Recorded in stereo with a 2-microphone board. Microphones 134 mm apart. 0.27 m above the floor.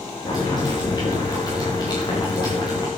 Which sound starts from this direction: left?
Boiling, at 0.2 s.